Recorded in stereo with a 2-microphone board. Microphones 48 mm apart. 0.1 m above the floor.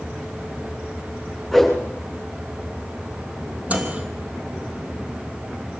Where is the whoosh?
Centre (ahead or behind), 7 m.